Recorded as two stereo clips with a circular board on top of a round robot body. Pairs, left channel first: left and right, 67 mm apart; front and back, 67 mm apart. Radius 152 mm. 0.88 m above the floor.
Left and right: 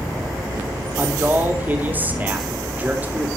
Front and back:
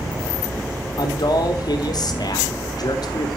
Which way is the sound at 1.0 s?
25° right.